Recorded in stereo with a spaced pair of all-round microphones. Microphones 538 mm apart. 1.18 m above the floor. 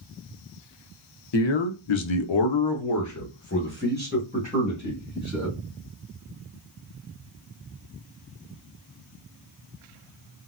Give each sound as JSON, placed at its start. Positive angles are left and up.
{"t": 1.3, "sound": "a man speaking", "side_deg": 50, "distance_m": 0.7}